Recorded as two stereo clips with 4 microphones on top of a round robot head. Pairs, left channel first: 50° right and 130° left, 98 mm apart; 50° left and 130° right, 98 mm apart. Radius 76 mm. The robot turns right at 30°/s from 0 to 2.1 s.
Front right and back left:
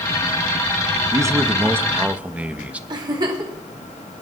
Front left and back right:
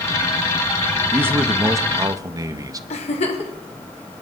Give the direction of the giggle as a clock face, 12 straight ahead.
9 o'clock.